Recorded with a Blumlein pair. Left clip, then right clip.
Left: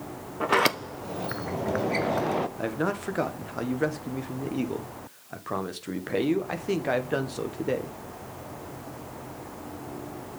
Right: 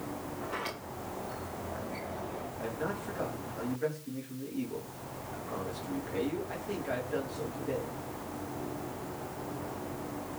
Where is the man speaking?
55° left, 1.7 m.